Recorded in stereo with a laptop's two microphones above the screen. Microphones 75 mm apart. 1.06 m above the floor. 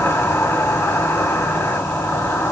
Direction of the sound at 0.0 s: 40° left (ahead or behind).